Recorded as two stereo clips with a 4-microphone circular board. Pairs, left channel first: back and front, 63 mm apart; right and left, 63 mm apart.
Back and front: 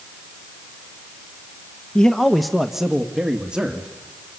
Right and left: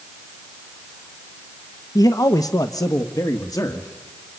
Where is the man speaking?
105° right, 0.8 m; by 3.9 s 70° right, 2.0 m.